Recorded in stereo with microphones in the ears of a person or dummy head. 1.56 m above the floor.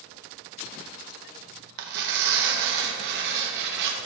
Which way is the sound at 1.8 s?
60° right (ahead or behind).